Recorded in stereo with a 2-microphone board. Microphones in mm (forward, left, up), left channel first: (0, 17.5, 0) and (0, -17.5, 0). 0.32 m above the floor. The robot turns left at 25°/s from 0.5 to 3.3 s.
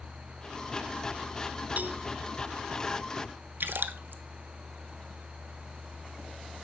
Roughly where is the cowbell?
Right.